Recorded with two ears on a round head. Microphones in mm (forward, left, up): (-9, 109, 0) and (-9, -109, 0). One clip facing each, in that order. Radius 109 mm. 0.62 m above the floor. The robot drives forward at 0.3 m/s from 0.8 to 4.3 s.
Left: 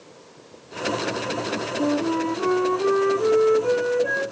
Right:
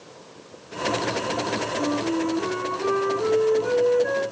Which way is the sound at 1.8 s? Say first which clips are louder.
Left 2 dB; 70° left (ahead or behind).